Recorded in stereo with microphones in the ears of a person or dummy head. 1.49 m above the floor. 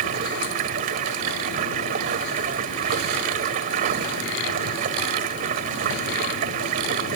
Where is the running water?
55° right (ahead or behind).